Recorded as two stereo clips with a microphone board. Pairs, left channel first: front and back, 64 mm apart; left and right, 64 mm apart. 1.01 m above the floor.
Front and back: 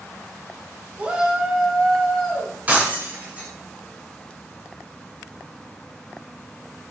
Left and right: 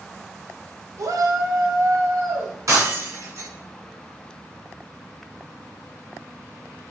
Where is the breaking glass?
120° right, 2.5 m.